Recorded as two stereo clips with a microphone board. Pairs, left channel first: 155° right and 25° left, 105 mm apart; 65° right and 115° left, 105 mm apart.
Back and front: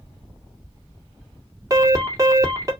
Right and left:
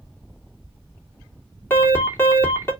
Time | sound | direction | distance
1.7 | an alarm | 10° right | 2.5 m